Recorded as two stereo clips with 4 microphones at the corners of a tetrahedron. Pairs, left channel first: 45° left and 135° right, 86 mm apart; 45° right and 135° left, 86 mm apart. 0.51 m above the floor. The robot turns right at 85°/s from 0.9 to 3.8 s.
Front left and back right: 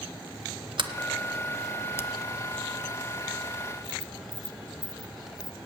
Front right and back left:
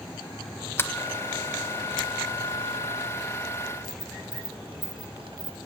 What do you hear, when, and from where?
0.8 s a sliding door: 110° right, 0.8 m; by 5.6 s 140° left, 0.8 m